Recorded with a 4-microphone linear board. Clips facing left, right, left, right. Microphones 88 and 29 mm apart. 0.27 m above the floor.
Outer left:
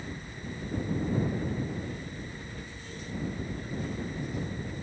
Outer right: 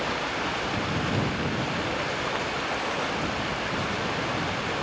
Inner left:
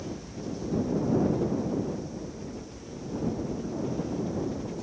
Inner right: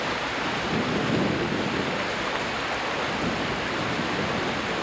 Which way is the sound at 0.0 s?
90° right.